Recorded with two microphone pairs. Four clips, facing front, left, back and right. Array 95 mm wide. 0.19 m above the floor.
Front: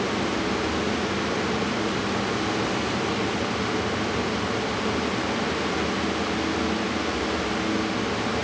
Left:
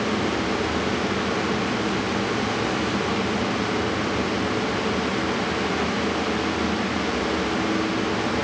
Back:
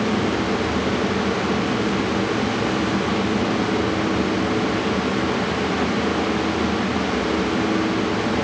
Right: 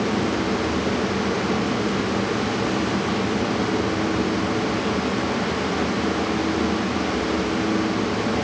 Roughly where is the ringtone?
I don't hear a ringtone.